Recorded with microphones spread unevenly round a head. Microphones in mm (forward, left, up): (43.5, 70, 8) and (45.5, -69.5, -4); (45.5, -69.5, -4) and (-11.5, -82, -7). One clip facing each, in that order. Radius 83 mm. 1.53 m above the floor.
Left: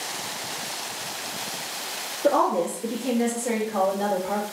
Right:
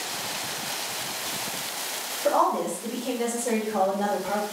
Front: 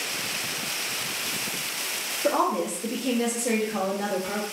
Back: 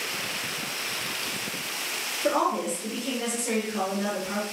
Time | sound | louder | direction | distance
2.2 | a woman speaking | left 2 dB, front 1 dB | 85° left | 0.7 m